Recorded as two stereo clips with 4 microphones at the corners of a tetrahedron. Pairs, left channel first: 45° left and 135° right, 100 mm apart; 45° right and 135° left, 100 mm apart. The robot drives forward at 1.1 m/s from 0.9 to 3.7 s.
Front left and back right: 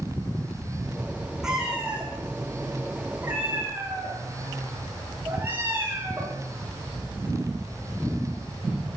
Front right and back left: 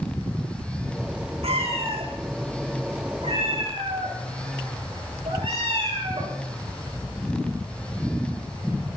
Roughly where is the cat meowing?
Behind left.